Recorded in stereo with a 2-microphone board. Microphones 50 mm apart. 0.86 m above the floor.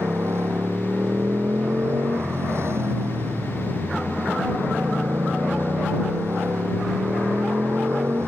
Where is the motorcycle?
60° right (ahead or behind).